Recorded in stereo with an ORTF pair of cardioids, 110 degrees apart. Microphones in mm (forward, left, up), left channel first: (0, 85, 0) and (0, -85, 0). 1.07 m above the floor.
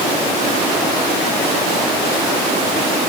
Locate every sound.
Only background noise.